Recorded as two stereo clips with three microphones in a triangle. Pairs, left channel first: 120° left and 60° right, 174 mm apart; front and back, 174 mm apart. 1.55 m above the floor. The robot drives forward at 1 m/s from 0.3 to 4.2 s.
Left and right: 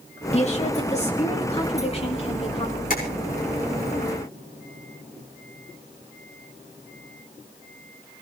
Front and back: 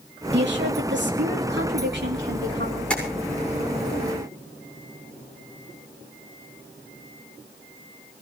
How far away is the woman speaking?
About 3 m.